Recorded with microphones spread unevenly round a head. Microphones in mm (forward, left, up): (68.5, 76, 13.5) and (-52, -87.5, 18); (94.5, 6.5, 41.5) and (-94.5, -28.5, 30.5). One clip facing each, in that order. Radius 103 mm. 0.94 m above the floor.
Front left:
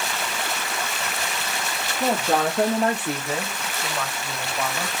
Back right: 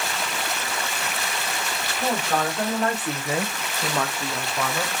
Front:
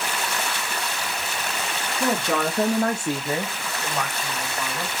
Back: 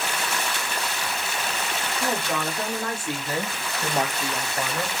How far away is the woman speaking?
About 1.6 m.